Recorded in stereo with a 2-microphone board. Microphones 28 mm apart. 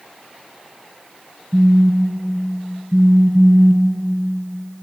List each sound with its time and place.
1.5 s a phone buzzing: 35° right (ahead or behind), 1.9 m